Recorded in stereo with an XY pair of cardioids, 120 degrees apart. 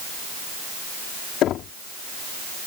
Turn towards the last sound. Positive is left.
turn(degrees=70)